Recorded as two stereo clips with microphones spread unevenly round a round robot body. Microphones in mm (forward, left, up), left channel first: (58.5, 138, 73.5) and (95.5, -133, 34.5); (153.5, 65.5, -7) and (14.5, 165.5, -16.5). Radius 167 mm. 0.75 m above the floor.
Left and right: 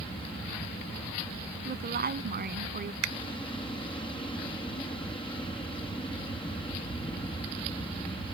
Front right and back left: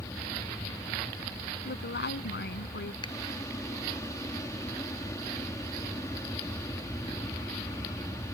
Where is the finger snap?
115° right.